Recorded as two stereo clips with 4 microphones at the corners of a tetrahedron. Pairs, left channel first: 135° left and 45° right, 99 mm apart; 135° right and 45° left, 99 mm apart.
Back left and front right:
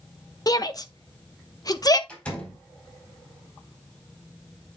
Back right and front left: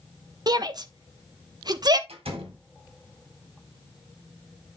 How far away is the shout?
About 1.2 m.